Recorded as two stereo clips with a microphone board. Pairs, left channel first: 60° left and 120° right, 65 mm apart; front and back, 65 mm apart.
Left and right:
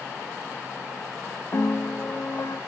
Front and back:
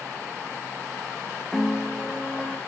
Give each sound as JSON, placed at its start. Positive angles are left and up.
{"t": 1.5, "sound": "a piano", "azimuth_deg": 85, "distance_m": 0.6}